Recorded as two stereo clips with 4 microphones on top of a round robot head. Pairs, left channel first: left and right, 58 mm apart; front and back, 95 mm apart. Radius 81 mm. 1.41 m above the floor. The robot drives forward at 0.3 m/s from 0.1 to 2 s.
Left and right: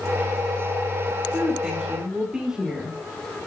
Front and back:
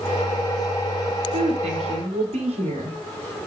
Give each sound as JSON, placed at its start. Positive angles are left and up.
{"t": 1.3, "sound": "a woman speaking", "azimuth_deg": -175, "distance_m": 4.5}